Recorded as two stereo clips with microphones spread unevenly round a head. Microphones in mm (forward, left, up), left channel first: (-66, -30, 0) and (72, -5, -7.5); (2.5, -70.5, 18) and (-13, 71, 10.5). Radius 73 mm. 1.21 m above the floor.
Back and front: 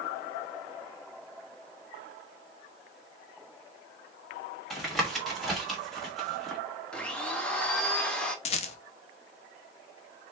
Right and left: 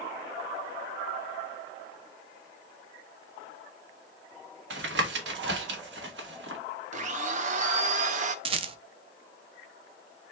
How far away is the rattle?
About 0.5 m.